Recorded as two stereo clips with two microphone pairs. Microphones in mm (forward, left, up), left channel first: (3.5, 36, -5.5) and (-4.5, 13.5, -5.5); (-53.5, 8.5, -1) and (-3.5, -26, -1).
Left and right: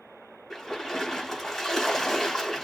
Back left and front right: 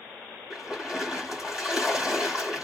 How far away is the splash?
About 1.4 m.